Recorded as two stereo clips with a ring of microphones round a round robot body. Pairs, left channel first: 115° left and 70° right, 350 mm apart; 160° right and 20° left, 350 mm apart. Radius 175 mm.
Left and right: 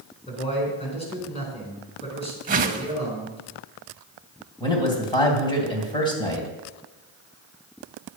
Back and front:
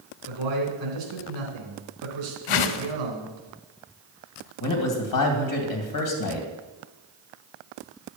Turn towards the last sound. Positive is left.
turn(degrees=-175)